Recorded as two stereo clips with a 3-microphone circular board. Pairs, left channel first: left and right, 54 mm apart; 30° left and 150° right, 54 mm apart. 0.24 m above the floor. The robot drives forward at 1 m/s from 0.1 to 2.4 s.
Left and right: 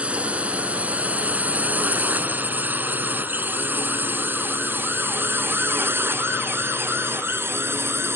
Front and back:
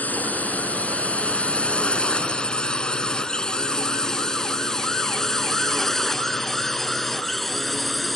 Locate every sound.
0.0 s a drone: 30° right; by 8.2 s 60° right